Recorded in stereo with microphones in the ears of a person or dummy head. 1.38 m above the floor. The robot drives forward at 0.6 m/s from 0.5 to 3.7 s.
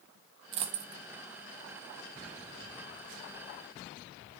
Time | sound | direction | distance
0.5 | a dropped coin | 35° right (ahead or behind) | 0.9 m